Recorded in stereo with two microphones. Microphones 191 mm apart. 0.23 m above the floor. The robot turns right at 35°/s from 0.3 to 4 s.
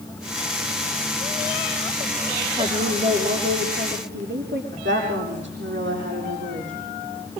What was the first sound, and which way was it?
A woman speaking, 160° right.